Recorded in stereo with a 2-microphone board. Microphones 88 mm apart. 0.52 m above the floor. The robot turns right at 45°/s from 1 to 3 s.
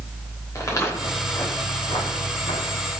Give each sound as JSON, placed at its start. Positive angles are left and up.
{"t": 0.6, "sound": "footsteps", "side_deg": 35, "distance_m": 6.5}